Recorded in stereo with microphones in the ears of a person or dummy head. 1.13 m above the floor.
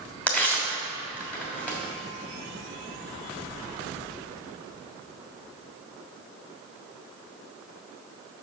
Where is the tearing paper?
10° left (ahead or behind), 3 m.